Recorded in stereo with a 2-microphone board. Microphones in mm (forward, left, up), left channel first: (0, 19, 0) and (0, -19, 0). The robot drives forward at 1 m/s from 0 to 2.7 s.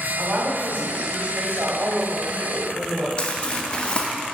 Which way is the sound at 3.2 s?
25° left (ahead or behind).